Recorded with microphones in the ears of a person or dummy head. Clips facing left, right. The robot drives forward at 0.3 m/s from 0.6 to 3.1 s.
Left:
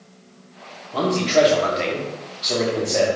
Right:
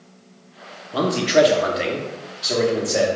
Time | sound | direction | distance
0.9 | a man speaking | 15° right (ahead or behind) | 0.5 m